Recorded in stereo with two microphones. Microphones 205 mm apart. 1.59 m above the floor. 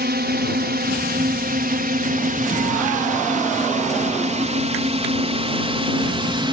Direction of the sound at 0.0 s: 55° right (ahead or behind).